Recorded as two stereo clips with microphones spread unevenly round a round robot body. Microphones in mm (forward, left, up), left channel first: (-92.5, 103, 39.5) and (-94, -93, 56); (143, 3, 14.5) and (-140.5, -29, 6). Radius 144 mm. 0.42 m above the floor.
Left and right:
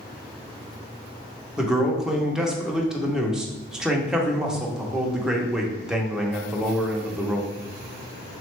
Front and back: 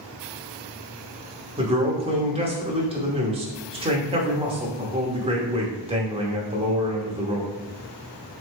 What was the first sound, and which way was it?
A man speaking, 175° left.